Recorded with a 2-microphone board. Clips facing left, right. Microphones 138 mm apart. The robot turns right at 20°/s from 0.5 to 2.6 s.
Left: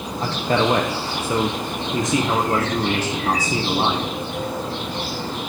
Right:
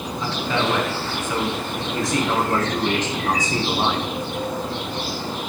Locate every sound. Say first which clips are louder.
0.2 s a man speaking: left 4 dB; 125° left, 1.0 m; by 4.2 s 170° left, 1.0 m